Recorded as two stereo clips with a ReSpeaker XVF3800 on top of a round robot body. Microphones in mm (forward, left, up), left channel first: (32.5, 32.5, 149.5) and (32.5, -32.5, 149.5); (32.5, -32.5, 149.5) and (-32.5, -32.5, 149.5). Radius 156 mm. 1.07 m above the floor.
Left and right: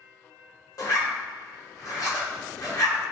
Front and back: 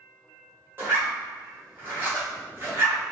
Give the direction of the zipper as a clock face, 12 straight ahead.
8 o'clock.